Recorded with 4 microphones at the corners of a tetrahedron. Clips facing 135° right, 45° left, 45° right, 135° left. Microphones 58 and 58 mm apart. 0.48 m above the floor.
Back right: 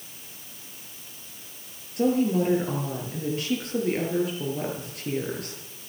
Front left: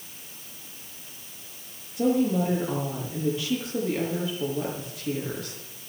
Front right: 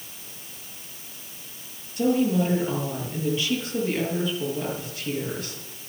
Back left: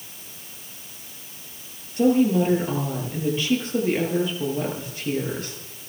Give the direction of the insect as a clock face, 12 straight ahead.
I don't hear an insect.